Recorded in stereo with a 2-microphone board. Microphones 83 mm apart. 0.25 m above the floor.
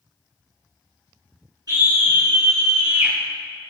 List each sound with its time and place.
1.7 s a scream: 55° right (ahead or behind), 3 m; by 3.1 s 30° right (ahead or behind), 2.5 m